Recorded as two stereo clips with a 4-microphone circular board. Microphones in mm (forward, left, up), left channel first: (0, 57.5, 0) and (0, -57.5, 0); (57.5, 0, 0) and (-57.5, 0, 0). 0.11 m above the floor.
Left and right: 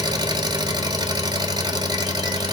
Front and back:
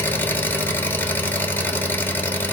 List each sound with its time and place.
0.0 s an engine running: 65° right, 0.8 m